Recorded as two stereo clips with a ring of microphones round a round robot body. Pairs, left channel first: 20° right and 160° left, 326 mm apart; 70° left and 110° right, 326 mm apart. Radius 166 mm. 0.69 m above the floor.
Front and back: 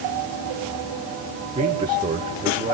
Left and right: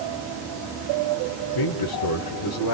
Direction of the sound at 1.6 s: 80° left.